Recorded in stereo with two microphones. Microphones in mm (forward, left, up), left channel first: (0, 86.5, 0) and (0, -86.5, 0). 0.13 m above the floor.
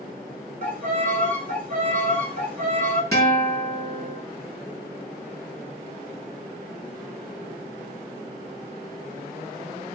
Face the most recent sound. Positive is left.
turn(degrees=20)  # may be behind; listen again after turning